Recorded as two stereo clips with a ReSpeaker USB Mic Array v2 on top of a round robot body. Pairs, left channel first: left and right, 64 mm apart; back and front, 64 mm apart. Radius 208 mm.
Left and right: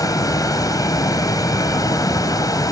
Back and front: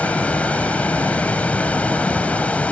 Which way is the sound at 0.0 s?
110° left.